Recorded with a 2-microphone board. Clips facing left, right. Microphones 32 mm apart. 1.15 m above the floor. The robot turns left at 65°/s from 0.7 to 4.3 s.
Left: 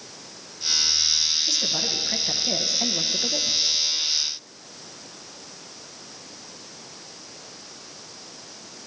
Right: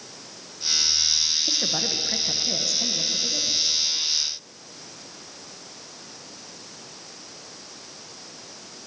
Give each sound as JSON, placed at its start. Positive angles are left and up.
{"t": 1.5, "sound": "a woman speaking", "azimuth_deg": -140, "distance_m": 1.1}